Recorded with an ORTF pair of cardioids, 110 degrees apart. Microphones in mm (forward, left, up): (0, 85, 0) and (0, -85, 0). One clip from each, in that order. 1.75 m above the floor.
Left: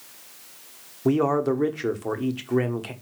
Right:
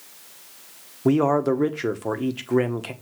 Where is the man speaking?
10° right, 1.1 m.